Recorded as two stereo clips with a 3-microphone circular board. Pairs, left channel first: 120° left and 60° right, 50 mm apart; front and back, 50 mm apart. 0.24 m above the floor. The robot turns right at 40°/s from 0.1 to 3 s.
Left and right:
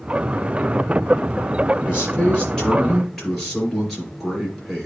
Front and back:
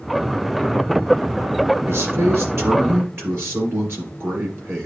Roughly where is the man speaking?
Behind.